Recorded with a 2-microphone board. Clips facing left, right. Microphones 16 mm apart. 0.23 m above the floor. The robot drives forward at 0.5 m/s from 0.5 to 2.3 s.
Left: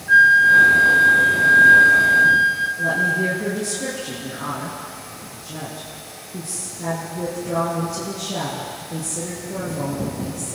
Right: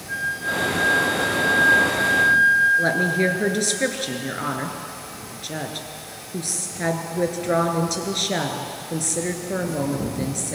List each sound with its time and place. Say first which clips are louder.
0.1 s a flute: left 15 dB; 50° left (ahead or behind), 2.0 m; by 2.7 s 35° left (ahead or behind), 2.5 m
2.8 s a woman speaking: even; 70° right (ahead or behind), 3.5 m